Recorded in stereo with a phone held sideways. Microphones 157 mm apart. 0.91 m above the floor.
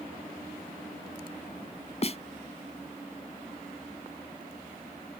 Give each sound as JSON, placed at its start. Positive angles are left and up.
{"t": 2.0, "sound": "a snare drum", "side_deg": 45}